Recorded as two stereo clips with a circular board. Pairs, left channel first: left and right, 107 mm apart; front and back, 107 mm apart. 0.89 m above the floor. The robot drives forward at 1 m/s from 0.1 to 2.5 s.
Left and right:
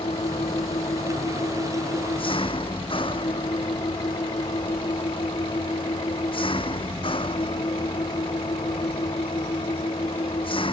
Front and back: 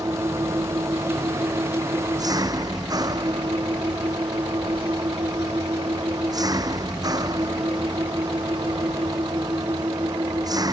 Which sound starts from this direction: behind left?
An engine running, at 0.0 s.